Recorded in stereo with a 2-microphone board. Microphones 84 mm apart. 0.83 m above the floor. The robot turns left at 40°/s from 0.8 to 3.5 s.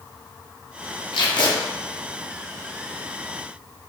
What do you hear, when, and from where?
1.1 s tape being pulled: 70° left (ahead or behind), 0.5 m; by 1.5 s 65° left (ahead or behind), 0.5 m